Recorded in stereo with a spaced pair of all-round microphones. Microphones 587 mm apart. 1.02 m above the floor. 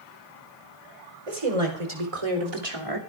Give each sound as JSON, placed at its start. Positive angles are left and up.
{"t": 1.3, "sound": "a woman speaking", "side_deg": -85, "distance_m": 5.0}